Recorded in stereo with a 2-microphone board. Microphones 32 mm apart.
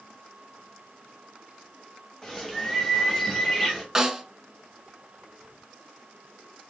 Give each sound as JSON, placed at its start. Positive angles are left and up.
{"t": 2.2, "sound": "a bird", "side_deg": 10, "distance_m": 1.2}
{"t": 4.0, "sound": "a snare drum", "side_deg": -15, "distance_m": 0.7}